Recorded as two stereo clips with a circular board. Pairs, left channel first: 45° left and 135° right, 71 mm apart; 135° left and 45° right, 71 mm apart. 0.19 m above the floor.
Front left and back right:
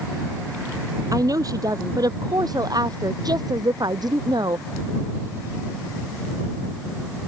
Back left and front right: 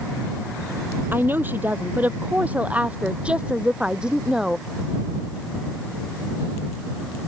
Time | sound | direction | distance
1.1 | a woman speaking | 105° right | ?